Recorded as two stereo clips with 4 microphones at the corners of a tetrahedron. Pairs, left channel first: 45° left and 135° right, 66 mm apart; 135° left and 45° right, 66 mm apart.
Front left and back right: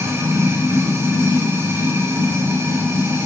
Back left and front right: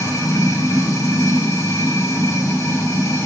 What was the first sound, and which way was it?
Running water, 170° left.